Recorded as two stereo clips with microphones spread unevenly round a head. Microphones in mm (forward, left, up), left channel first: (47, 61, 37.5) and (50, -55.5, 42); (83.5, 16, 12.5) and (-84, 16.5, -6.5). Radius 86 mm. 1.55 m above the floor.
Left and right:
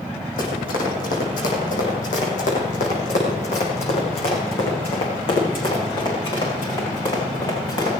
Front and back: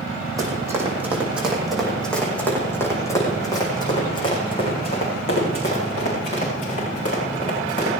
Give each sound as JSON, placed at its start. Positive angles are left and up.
{"t": 0.4, "sound": "running footsteps", "azimuth_deg": 105, "distance_m": 5.5}